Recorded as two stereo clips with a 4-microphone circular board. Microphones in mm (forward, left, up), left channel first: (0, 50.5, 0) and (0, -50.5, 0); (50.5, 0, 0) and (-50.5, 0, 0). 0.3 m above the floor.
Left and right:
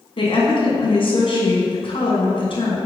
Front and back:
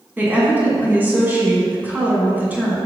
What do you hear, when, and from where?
0.2 s a woman speaking: 110° left, 2 m